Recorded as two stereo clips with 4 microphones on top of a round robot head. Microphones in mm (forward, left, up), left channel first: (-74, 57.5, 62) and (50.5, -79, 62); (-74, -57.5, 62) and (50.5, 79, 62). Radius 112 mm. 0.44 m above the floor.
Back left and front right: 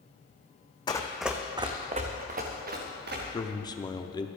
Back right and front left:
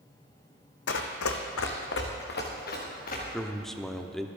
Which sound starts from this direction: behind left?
A man speaking, at 3.3 s.